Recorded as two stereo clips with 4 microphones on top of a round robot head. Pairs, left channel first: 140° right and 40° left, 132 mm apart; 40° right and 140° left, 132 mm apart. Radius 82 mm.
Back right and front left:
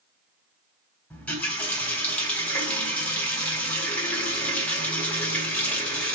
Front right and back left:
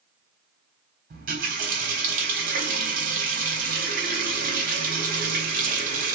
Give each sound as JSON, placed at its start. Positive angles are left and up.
{"t": 1.1, "sound": "a running tap", "azimuth_deg": 135, "distance_m": 1.3}